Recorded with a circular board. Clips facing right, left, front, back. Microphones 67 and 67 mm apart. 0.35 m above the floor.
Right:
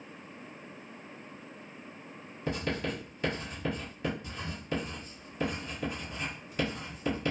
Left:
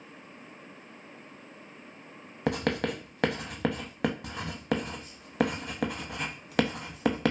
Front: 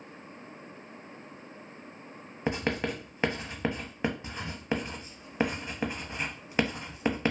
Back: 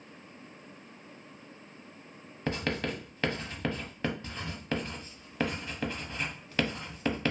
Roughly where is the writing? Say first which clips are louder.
Left 5 dB, front 2 dB; left.